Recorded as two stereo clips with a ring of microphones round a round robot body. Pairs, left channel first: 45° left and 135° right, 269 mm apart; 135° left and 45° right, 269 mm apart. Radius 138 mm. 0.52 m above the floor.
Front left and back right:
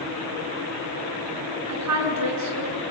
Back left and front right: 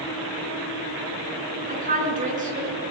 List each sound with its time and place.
1.7 s a woman speaking: 105° right, 5.5 m